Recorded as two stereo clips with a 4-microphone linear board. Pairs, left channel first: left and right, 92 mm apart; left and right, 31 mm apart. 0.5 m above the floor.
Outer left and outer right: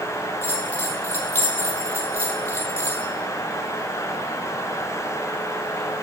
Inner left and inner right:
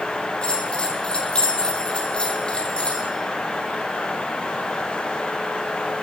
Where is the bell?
30° left (ahead or behind), 1.0 m.